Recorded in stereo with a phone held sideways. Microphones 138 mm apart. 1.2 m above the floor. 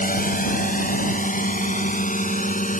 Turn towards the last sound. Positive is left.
turn(degrees=70)  # may be behind; listen again after turning